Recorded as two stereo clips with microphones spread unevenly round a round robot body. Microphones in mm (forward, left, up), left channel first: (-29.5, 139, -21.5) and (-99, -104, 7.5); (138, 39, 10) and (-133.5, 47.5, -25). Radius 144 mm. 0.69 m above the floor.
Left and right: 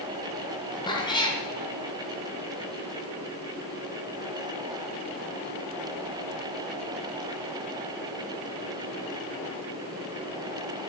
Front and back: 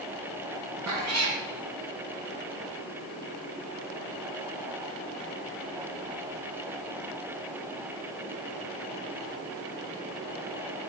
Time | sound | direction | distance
0.9 | a cat meowing | 145° left | 3 m